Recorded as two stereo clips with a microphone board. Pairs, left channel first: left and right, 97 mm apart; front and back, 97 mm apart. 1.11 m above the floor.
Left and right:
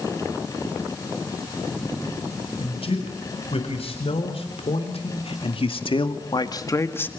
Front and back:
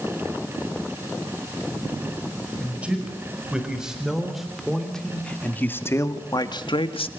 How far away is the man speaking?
About 5.5 m.